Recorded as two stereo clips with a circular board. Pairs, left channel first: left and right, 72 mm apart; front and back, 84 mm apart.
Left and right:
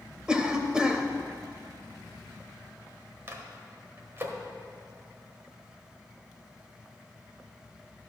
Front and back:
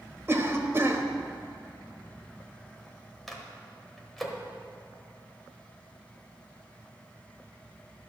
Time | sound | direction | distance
0.3 | a cough | 160° right | 1.0 m
3.3 | a microwave | 90° right | 1.2 m